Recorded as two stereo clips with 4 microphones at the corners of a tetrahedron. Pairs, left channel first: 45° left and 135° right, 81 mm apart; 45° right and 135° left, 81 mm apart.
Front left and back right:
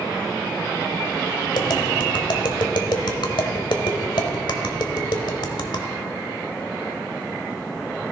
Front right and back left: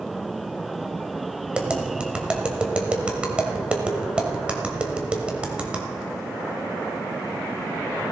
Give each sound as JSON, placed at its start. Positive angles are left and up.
{"t": 1.5, "sound": "tapping", "azimuth_deg": 60, "distance_m": 1.2}